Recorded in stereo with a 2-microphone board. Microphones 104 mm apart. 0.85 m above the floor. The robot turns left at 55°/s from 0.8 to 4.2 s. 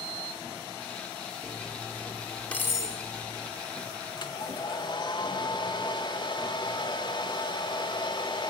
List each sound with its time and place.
1.4 s cutlery clinking: 45° right (ahead or behind), 1.6 m; by 3.5 s 65° left (ahead or behind), 1.6 m
4.2 s a hair dryer: 45° left (ahead or behind), 2.0 m; by 8.5 s 50° left (ahead or behind), 2.0 m